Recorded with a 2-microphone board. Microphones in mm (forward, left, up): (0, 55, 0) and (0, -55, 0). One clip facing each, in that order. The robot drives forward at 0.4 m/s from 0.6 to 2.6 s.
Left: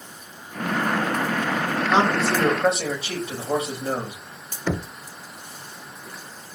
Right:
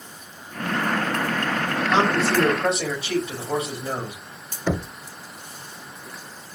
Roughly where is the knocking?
Centre.